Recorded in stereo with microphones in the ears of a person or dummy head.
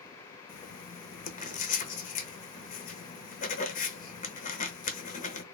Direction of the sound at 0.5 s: 45° left (ahead or behind).